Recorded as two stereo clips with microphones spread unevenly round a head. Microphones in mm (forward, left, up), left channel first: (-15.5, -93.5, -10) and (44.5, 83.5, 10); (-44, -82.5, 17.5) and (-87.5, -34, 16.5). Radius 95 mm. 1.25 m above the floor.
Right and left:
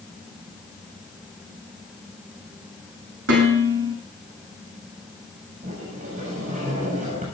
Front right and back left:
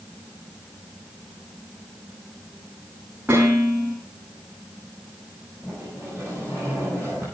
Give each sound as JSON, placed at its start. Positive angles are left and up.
{"t": 3.3, "sound": "dishes clattering", "azimuth_deg": 50, "distance_m": 10.0}
{"t": 5.6, "sound": "a sliding door", "azimuth_deg": 25, "distance_m": 7.5}